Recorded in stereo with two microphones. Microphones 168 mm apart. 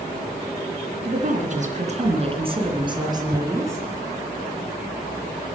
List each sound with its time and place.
1.1 s a woman speaking: 60° right (ahead or behind), 3 m; by 3.9 s 15° right (ahead or behind), 3.5 m